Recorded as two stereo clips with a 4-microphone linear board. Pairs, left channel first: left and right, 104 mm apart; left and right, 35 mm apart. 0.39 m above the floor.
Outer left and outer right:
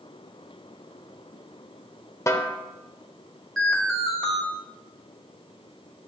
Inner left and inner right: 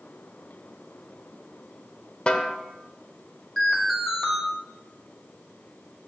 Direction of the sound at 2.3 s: 30° left (ahead or behind).